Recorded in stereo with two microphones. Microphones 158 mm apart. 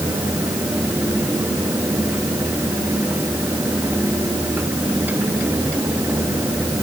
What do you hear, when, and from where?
Only background noise.